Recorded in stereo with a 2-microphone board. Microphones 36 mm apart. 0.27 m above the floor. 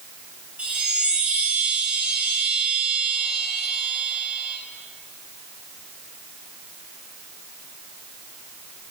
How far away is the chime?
About 2 m.